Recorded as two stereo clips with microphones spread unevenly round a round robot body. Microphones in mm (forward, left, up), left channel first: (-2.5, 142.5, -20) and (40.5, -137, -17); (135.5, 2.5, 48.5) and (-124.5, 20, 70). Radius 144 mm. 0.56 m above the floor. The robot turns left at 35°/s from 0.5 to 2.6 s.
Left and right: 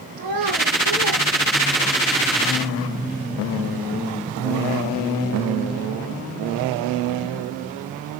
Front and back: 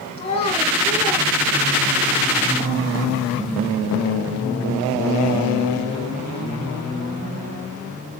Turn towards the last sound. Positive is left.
turn(degrees=-145)